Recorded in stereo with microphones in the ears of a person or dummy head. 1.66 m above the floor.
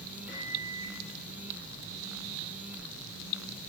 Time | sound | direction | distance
0.3 | a microwave | 55° left (ahead or behind) | 6.5 m